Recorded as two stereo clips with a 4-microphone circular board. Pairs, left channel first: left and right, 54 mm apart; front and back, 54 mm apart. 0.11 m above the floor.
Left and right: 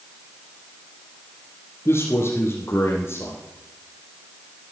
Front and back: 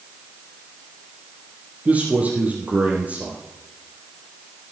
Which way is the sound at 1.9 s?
120° left.